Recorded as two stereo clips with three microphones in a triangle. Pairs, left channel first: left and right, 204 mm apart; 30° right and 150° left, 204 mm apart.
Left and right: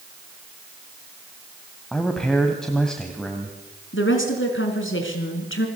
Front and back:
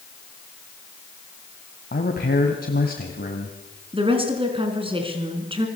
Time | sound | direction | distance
1.9 | a man speaking | 5° left | 2.5 m
3.9 | a woman speaking | 85° left | 4 m